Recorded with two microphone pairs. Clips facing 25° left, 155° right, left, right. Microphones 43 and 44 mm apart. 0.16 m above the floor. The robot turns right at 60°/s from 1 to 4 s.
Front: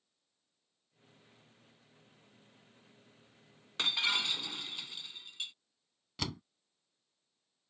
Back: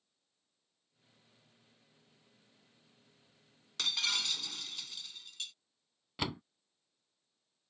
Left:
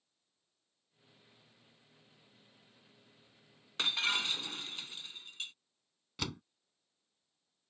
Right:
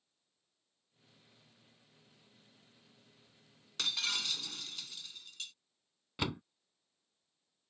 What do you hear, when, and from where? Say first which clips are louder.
3.8 s breaking glass: front 3 dB, left 4 dB; 55° left; by 5.5 s 65° left
6.2 s a door slam: back 2 dB, right 4 dB; 130° right